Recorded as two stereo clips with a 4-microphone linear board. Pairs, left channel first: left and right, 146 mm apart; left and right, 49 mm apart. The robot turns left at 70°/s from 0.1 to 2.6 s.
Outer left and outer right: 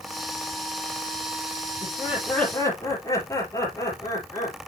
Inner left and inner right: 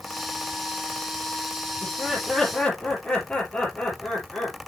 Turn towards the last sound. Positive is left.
turn(degrees=160)